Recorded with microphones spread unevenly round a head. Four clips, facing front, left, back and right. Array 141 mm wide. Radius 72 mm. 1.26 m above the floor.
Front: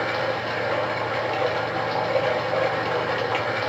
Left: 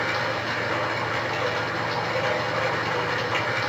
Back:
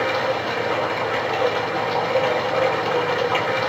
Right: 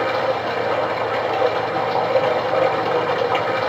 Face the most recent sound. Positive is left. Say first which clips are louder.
# right 7 dB, back 3 dB
turn(degrees=-90)